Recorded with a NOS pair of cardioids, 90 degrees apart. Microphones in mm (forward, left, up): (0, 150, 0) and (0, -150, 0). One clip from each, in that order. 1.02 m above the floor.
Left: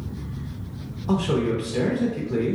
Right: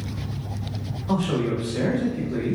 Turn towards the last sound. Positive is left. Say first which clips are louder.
# left 1 dB
turn(degrees=45)